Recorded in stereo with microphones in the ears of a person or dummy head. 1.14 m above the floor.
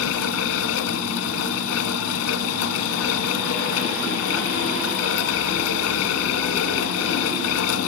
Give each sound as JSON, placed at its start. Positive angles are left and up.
{"t": 0.0, "sound": "a fan", "side_deg": 80, "distance_m": 1.4}